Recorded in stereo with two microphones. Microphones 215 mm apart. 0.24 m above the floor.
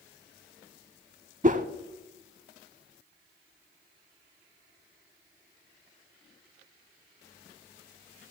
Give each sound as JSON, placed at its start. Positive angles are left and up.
{"t": 1.4, "sound": "a whoosh", "side_deg": -35, "distance_m": 0.6}